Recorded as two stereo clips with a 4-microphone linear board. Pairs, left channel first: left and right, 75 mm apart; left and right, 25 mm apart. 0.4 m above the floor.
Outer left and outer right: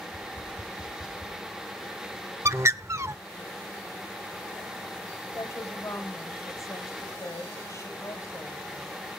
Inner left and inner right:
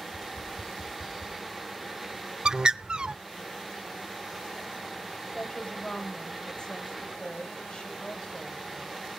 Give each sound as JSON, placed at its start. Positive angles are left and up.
{"t": 0.1, "sound": "tapping", "side_deg": 0, "distance_m": 4.5}
{"t": 2.5, "sound": "a bird", "side_deg": -40, "distance_m": 0.5}
{"t": 5.2, "sound": "a woman speaking", "side_deg": 45, "distance_m": 2.5}